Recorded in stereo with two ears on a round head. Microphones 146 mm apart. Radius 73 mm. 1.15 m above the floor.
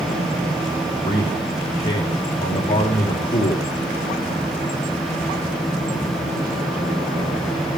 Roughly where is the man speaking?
Left.